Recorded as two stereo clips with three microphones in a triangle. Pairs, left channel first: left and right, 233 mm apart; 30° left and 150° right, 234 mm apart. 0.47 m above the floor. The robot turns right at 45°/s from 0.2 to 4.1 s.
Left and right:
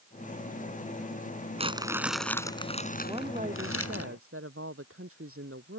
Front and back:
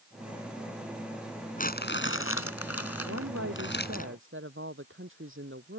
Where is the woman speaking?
165° right; by 5.8 s 115° right.